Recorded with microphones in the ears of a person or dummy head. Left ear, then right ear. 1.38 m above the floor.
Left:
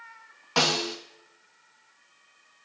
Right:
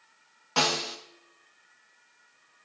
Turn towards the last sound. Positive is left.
turn(degrees=15)  # may be behind; listen again after turning